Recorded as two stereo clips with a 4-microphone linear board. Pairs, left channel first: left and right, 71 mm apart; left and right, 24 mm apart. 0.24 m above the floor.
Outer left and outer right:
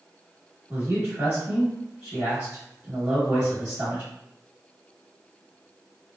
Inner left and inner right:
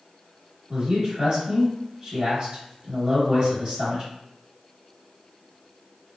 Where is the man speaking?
15° right (ahead or behind), 1.1 m.